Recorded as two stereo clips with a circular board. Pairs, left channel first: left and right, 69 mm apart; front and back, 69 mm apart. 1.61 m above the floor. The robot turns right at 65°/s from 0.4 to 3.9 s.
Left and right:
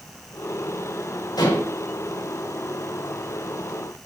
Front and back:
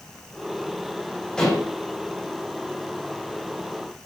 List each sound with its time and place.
1.4 s dishes clattering: 80° left, 5.5 m; by 1.8 s 105° left, 5.5 m